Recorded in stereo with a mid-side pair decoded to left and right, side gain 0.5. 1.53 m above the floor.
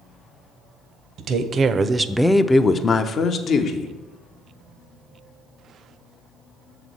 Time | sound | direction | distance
1.2 | a woman speaking | 60° right | 0.7 m